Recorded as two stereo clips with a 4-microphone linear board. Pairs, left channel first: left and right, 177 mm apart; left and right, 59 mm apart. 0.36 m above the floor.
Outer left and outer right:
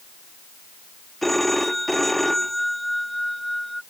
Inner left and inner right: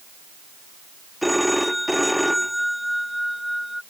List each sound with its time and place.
1.2 s a phone ringing: centre (ahead or behind)